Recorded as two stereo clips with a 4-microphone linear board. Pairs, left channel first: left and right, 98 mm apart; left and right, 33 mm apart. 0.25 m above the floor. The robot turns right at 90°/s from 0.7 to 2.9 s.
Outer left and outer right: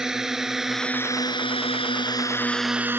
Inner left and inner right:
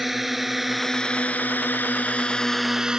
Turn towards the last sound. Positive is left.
turn(degrees=-20)  # may be behind; listen again after turning